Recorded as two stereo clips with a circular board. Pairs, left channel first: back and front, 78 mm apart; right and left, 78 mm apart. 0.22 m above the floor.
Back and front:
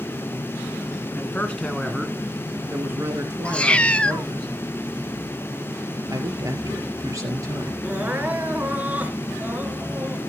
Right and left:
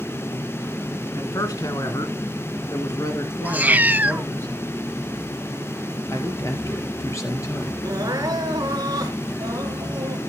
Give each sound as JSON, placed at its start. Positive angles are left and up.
{"t": 1.1, "sound": "a man speaking", "azimuth_deg": -120, "distance_m": 2.5}
{"t": 3.5, "sound": "a cat meowing", "azimuth_deg": 125, "distance_m": 0.5}
{"t": 6.1, "sound": "a man speaking", "azimuth_deg": -45, "distance_m": 3.5}
{"t": 7.8, "sound": "crying", "azimuth_deg": 65, "distance_m": 2.5}